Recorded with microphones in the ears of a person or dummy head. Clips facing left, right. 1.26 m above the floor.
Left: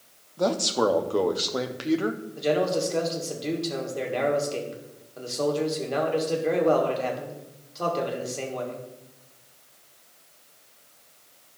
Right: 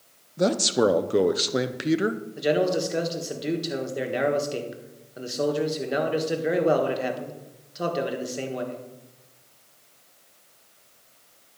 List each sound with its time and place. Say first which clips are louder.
0.4 s a man speaking: right 2 dB; 25° right (ahead or behind), 0.5 m
2.4 s a man speaking: right 1 dB; 10° right (ahead or behind), 1.6 m